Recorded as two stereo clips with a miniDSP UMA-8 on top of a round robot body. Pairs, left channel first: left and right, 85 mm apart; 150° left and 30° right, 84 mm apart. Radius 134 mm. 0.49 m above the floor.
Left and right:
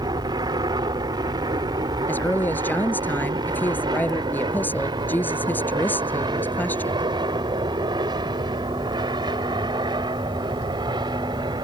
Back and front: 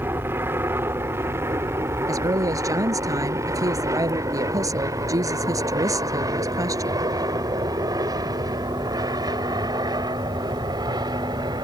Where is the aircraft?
90° right; by 11.7 s 65° right.